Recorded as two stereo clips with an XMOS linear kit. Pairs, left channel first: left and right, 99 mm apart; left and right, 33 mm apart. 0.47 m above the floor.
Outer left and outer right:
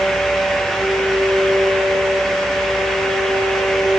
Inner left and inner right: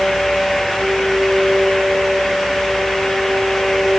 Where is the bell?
No bell in this recording.